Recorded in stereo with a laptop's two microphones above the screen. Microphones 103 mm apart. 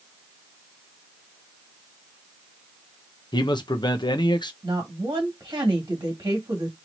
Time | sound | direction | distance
3.3 | a man speaking | 50° left (ahead or behind) | 0.6 m
4.6 | a woman speaking | 40° right (ahead or behind) | 1.5 m